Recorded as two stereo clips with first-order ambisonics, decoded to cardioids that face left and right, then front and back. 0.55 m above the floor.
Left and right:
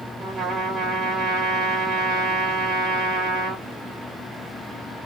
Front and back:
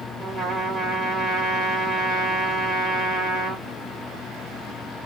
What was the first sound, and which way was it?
A trumpet, 100° right.